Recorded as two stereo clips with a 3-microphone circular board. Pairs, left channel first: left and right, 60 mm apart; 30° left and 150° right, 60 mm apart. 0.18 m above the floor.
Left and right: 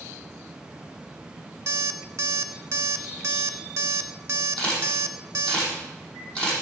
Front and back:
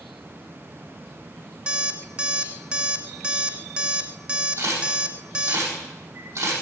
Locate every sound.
1.7 s an alarm clock: 85° right, 1.2 m
4.6 s a camera shutter: 165° left, 9 m